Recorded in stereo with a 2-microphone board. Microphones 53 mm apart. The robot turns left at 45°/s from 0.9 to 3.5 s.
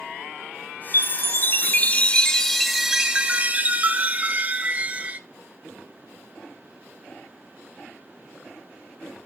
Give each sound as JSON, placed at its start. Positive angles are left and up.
{"t": 0.9, "sound": "a chime", "azimuth_deg": 80, "distance_m": 0.6}